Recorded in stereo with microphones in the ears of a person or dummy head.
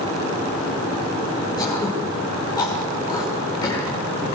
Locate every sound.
1.6 s throat clearing: 20° left (ahead or behind), 7 m